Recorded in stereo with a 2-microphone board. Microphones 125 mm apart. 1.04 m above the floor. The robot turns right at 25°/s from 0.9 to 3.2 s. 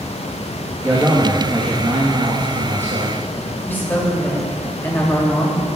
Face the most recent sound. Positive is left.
turn(degrees=20)  # may be behind; listen again after turning